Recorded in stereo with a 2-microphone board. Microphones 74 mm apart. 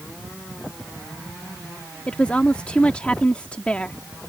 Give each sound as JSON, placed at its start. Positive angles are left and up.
{"t": 2.1, "sound": "a woman speaking", "side_deg": 15}